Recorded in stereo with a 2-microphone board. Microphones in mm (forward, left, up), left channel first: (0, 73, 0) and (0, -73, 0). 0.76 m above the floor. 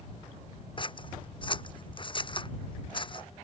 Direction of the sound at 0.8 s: 35° left (ahead or behind).